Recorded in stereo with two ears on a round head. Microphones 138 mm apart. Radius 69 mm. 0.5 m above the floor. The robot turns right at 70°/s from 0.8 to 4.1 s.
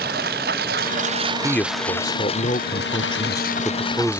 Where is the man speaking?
10° left; by 4.2 s 165° right.